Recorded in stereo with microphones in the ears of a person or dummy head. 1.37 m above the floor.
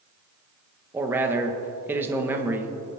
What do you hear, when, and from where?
0.9 s a man speaking: 10° right (ahead or behind), 1.5 m